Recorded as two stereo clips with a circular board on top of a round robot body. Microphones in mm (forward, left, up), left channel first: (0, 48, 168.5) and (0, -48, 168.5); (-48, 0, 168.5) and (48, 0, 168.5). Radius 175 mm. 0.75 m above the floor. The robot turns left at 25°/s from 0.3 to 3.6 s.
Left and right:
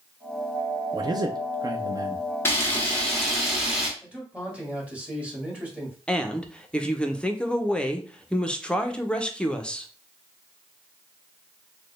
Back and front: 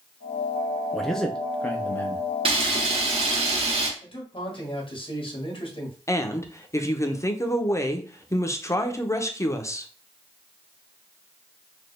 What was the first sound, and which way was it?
A man speaking, 90° right.